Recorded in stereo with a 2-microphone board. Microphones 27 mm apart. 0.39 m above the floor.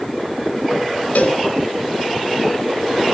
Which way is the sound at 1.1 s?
75° left (ahead or behind).